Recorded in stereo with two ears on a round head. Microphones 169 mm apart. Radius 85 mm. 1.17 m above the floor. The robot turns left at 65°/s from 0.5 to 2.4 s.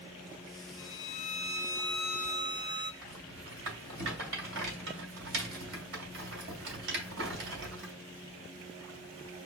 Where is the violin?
80° left, 0.6 m; by 2.9 s 25° right, 0.6 m.